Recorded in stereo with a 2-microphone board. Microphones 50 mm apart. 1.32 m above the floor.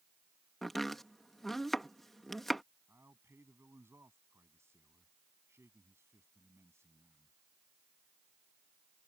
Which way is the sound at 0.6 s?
5° left (ahead or behind).